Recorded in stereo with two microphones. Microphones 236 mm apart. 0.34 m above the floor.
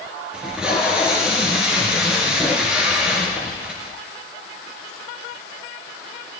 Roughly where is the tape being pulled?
Centre.